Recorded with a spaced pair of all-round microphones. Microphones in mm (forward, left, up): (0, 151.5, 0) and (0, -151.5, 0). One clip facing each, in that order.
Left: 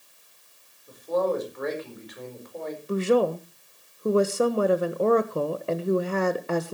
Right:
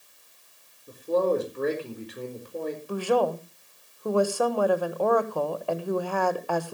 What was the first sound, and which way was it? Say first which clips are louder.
A man speaking: right 2 dB; 35° right (ahead or behind).